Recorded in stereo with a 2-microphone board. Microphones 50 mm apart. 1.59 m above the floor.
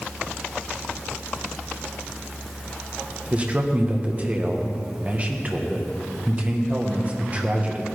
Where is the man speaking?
30° right (ahead or behind), 1.4 m.